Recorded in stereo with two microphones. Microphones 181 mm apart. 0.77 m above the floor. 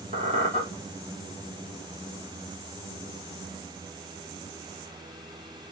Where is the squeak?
40° right (ahead or behind), 1.2 m.